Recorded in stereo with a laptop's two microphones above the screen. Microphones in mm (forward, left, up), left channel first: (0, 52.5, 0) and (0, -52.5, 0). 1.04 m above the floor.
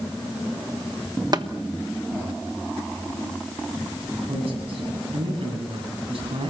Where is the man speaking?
80° right, 8.5 m.